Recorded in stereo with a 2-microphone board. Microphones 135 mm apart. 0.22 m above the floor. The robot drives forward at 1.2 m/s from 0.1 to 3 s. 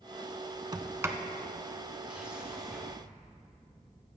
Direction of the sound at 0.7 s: 30° right (ahead or behind).